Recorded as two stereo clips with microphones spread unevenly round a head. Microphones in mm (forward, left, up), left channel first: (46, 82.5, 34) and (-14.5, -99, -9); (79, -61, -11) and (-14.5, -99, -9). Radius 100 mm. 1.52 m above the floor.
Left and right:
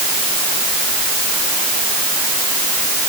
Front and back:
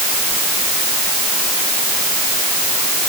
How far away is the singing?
No singing in this recording.